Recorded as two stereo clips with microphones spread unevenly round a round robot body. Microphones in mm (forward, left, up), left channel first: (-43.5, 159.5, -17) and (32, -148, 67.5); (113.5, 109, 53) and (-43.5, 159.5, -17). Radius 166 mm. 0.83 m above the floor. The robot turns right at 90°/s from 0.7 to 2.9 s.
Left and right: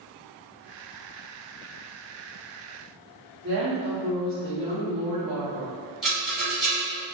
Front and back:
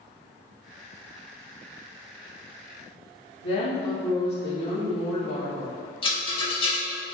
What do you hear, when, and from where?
3.4 s a woman speaking: 5° right, 1.3 m
6.0 s a rattle: straight ahead, 1.0 m